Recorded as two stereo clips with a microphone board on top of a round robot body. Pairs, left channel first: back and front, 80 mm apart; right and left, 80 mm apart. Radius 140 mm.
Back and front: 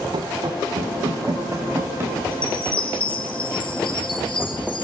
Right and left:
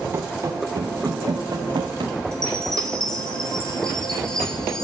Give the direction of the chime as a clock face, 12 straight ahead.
6 o'clock.